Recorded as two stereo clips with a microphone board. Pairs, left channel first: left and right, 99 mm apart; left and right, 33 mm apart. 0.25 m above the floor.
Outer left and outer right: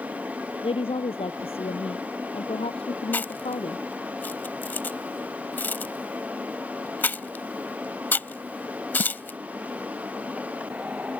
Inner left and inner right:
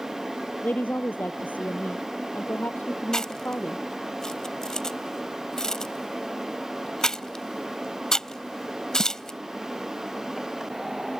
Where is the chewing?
20° left (ahead or behind).